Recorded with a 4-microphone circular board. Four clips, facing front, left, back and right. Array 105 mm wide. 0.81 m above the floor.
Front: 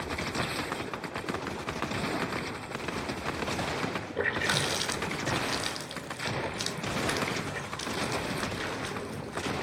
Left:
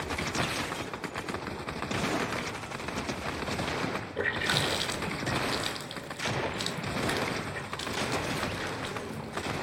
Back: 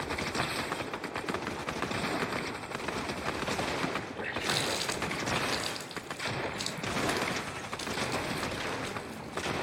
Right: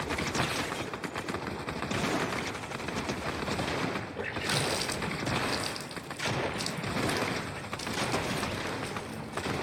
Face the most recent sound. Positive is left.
turn(degrees=35)